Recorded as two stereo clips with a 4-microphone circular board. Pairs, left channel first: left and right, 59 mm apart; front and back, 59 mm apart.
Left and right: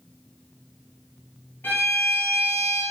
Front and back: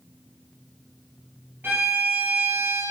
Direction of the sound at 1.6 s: 135° left.